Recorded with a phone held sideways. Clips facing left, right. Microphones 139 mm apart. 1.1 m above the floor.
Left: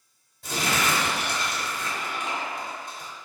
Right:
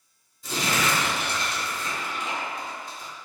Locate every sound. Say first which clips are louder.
0.4 s crumpling: even; 60° left (ahead or behind), 1.8 m